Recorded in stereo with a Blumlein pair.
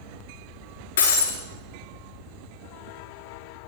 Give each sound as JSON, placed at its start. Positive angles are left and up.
{"t": 1.0, "sound": "breaking glass", "azimuth_deg": 60, "distance_m": 3.5}